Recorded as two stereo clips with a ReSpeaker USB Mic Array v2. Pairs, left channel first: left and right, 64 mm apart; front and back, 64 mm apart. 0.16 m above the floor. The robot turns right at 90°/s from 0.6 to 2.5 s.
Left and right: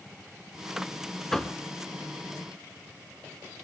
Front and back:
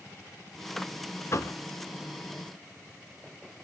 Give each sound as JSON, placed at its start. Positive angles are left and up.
{"t": 1.3, "sound": "knocking", "azimuth_deg": 5, "distance_m": 1.2}